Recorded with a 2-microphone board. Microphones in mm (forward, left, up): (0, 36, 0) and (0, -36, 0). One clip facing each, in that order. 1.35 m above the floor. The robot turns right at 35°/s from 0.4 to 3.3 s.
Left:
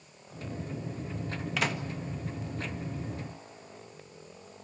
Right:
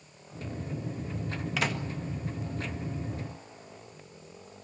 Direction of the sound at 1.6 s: Centre (ahead or behind).